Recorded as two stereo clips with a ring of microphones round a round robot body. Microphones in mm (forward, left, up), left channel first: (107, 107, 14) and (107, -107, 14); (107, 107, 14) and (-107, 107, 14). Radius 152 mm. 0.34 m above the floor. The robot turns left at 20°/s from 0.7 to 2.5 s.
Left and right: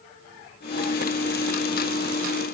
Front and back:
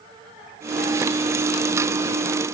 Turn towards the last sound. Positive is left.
No sound to turn to.